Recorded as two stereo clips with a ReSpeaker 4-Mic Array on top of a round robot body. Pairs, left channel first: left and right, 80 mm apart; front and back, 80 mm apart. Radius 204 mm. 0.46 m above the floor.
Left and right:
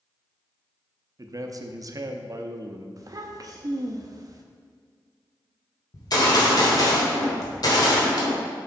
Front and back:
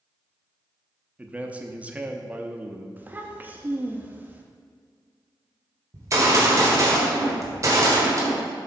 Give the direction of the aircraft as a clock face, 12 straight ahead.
I don't hear an aircraft.